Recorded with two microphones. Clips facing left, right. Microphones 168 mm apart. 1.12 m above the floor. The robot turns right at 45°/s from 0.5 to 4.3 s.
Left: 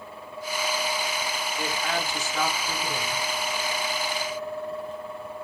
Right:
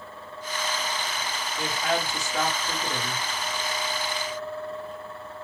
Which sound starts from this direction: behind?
A woman speaking, at 1.6 s.